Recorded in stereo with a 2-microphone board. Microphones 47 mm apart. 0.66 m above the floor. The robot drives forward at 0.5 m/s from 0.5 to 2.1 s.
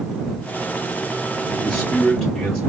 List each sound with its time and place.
1.6 s a man speaking: 20° left (ahead or behind), 0.7 m; by 2.6 s 15° left (ahead or behind), 0.8 m